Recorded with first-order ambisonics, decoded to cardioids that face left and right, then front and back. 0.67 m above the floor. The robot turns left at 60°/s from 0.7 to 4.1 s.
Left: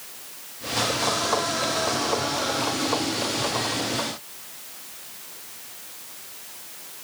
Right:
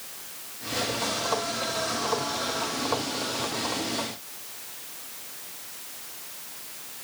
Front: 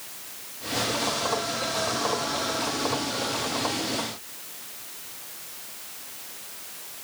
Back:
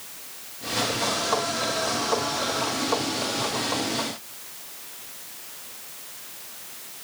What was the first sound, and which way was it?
Only background noise.